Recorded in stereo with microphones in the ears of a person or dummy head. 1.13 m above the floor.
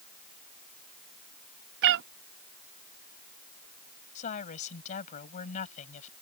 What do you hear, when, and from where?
1.8 s a cat meowing: 55° right (ahead or behind)
4.2 s a woman speaking: 40° left (ahead or behind)